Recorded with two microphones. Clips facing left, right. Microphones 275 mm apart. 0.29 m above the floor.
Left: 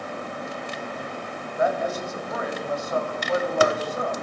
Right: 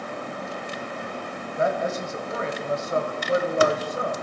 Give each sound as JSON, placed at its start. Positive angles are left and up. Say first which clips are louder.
{"t": 1.6, "sound": "a man speaking", "louder": "even", "side_deg": -25, "distance_m": 1.2}